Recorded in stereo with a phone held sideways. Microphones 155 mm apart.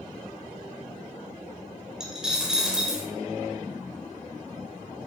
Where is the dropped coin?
5° right (ahead or behind), 0.6 m.